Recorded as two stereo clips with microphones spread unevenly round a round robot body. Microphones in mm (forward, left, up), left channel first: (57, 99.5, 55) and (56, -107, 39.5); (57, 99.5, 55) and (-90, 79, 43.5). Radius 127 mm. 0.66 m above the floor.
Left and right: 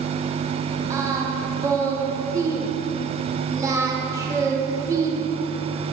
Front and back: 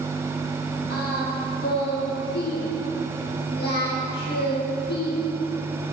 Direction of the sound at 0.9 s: 15° right.